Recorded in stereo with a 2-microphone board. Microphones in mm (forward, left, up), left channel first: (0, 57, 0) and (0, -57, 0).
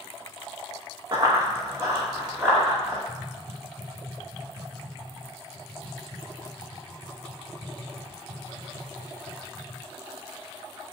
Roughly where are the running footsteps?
Right.